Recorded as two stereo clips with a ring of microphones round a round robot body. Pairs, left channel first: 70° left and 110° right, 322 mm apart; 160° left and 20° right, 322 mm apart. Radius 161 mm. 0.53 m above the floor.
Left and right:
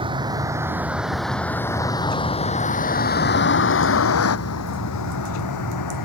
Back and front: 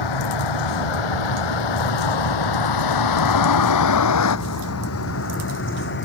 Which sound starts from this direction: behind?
A vehicle, at 0.0 s.